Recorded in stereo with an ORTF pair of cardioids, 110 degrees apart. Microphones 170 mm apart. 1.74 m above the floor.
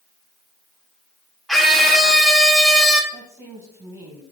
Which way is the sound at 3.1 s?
20° right.